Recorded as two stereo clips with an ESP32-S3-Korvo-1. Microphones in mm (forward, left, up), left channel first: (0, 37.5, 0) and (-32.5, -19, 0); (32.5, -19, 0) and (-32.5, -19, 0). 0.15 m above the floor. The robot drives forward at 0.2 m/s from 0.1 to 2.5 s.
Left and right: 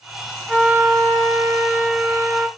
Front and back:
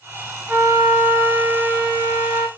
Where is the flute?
160° right, 1.2 m; by 2.5 s 170° right, 1.5 m.